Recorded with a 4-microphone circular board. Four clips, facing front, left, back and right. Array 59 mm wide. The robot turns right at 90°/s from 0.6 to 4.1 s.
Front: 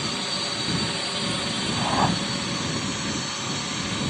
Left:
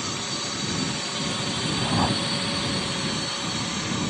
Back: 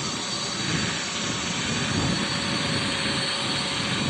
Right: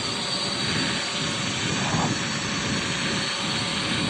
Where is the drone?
55° right; by 4.1 s 105° right.